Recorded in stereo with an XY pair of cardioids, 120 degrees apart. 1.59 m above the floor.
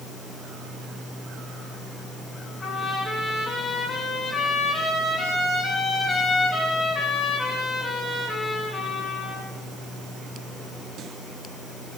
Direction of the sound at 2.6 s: 35° left.